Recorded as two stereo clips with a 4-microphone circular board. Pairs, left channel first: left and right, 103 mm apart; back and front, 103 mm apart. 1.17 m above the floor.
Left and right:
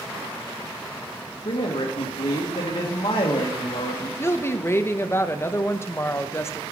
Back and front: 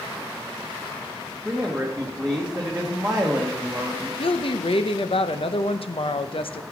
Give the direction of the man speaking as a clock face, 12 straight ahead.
9 o'clock.